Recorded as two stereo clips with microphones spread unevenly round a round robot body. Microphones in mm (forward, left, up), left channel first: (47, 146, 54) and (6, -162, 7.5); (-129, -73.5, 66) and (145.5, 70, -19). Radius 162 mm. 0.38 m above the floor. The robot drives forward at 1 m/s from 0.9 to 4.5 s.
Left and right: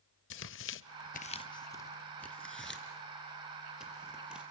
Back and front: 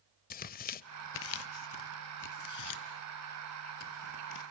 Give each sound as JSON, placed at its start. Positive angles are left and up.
{"t": 0.3, "sound": "tearing paper", "azimuth_deg": 140, "distance_m": 0.6}